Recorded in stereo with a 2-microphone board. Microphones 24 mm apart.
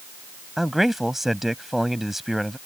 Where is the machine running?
No machine running in this recording.